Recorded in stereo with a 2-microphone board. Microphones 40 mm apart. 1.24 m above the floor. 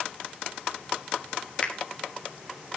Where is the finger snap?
35° left (ahead or behind), 1.2 m.